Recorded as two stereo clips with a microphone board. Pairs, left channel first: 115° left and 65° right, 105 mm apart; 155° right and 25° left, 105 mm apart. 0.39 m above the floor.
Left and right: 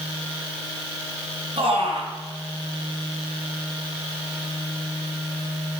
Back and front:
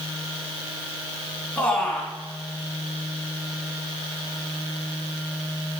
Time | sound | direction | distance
1.6 | a man speaking | 80° right | 3 m